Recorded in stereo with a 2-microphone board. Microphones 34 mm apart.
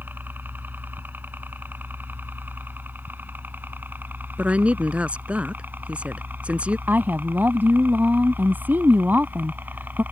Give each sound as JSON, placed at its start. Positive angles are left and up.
{"t": 0.0, "sound": "a helicopter", "side_deg": -65}
{"t": 4.4, "sound": "a woman speaking", "side_deg": -35}
{"t": 6.9, "sound": "a woman speaking", "side_deg": -65}